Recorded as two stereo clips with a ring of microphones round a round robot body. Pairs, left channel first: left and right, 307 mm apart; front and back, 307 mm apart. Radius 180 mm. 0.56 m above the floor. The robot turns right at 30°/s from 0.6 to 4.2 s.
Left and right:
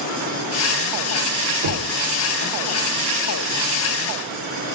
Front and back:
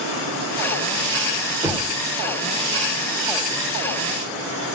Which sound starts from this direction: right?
Knocking, at 1.6 s.